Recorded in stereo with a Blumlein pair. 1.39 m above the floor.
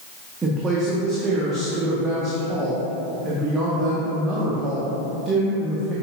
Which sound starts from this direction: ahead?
A woman speaking, at 0.4 s.